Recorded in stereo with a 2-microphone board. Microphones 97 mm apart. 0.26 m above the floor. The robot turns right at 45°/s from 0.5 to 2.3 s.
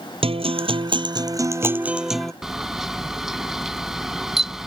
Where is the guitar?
75° right; by 2.3 s 5° left.